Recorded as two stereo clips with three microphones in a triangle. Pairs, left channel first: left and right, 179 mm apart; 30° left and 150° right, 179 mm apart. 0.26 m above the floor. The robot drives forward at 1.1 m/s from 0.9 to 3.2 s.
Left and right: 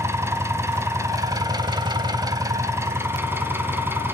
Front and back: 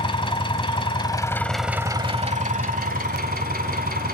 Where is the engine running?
20° right, 1.4 m; by 4.1 s 165° right, 1.8 m.